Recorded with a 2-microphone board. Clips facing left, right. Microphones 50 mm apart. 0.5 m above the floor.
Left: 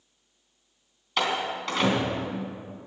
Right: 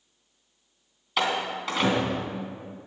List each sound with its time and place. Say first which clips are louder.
1.2 s a door slam: even; 5° right (ahead or behind), 3 m